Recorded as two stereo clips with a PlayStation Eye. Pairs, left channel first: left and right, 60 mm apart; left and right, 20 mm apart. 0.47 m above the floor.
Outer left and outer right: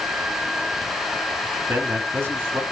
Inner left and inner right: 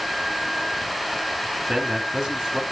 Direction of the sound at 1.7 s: 40° right (ahead or behind).